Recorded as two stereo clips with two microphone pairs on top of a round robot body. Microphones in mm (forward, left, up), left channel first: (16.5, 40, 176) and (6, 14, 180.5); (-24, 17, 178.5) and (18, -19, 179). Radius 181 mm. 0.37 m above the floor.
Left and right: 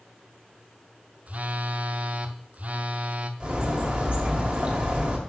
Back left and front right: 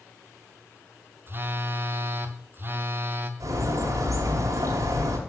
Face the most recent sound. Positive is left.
turn(degrees=-50)